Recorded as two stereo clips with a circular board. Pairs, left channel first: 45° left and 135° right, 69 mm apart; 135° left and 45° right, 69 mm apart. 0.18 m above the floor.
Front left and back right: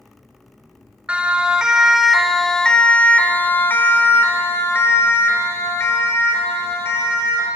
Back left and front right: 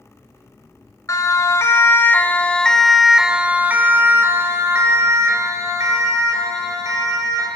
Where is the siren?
155° left, 2.5 m; by 7.5 s 10° right, 5.5 m.